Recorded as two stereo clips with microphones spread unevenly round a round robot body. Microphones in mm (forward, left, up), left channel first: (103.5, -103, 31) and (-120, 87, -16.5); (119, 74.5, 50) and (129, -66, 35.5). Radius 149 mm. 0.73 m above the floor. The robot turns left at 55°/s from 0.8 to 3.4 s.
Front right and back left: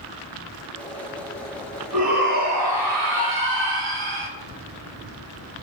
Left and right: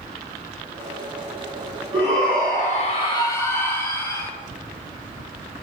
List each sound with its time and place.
1.9 s a shout: 150° right, 4 m; by 4.3 s 130° left, 4 m